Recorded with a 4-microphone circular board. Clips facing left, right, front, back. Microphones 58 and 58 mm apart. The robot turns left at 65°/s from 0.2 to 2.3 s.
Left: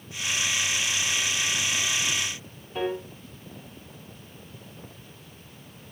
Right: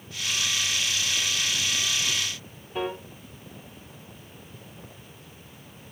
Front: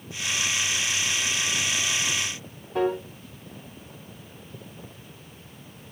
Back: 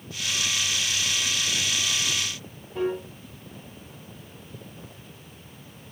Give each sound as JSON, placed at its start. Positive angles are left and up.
{"t": 2.8, "sound": "a piano", "azimuth_deg": -5, "distance_m": 1.8}